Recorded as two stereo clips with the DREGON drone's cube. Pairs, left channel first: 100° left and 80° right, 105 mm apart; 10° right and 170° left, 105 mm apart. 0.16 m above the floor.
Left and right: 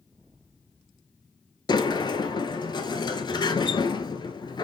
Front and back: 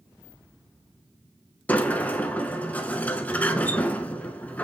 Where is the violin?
I don't hear a violin.